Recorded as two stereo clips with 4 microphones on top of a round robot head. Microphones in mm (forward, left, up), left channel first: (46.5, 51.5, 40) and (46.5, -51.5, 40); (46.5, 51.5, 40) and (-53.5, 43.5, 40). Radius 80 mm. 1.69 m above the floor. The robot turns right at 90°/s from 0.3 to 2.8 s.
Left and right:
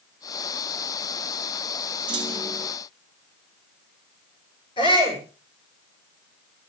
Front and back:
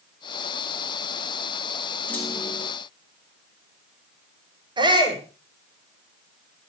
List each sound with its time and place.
2.1 s a clunk: 75° right, 1.5 m; by 2.7 s 20° right, 1.5 m
4.8 s a shout: 145° left, 8 m